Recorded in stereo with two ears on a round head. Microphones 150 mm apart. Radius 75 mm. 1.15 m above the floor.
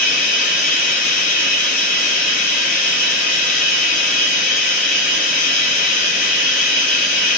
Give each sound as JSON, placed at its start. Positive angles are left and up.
{"t": 0.0, "sound": "running water", "side_deg": 55, "distance_m": 1.0}